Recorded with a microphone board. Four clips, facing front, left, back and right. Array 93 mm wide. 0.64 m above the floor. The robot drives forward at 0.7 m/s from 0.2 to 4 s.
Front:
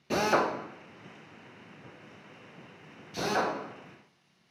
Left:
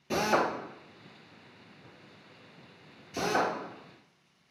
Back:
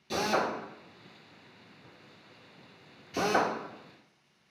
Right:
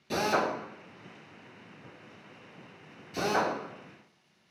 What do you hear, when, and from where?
0.1 s a drill: 20° left, 1.2 m; by 3.5 s 170° left, 1.9 m